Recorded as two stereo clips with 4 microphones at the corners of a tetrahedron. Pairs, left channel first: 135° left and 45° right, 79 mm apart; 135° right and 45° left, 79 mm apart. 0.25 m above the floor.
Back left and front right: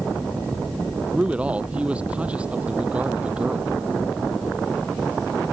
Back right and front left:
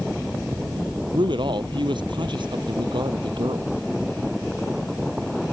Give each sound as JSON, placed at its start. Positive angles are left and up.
{"t": 1.1, "sound": "a man speaking", "azimuth_deg": 30}